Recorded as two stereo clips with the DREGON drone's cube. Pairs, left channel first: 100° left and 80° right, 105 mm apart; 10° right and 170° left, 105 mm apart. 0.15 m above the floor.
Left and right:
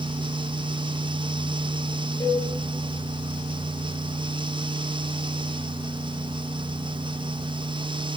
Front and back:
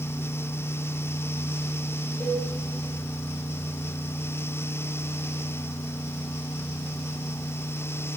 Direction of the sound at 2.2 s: 45° left.